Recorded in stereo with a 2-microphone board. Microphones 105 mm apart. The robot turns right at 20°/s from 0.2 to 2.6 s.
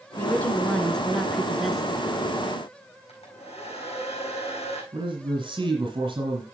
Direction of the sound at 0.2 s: 155° left.